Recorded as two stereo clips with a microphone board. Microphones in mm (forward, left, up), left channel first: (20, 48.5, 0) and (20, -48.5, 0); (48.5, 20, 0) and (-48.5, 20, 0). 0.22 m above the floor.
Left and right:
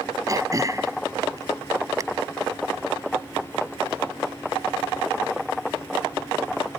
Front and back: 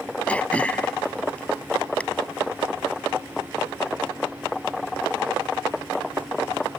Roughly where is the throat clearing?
Right.